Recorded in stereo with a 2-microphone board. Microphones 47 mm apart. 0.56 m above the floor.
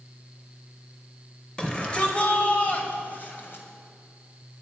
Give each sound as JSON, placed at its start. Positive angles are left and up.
{"t": 1.6, "sound": "a shout", "side_deg": 15, "distance_m": 1.8}